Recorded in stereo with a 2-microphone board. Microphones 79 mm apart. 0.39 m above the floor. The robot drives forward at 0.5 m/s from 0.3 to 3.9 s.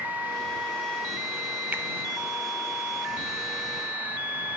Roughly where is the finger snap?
Right.